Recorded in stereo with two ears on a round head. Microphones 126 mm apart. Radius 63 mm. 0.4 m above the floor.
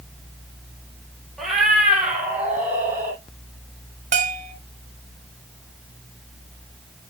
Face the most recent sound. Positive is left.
turn(degrees=-65)  # may be behind; listen again after turning